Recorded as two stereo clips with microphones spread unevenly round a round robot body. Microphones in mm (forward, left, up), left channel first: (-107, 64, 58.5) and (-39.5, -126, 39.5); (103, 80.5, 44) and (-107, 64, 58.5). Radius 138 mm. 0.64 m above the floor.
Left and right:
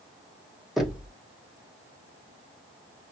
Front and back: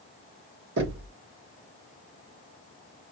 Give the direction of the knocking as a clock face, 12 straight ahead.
5 o'clock.